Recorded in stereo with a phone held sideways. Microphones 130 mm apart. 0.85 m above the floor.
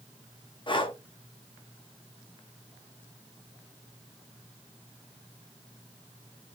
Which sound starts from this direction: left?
Breathing, at 0.7 s.